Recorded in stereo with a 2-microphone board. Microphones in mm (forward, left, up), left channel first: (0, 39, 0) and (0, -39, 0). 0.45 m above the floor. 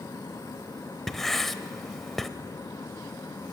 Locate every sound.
1.1 s writing: 5° left (ahead or behind), 0.8 m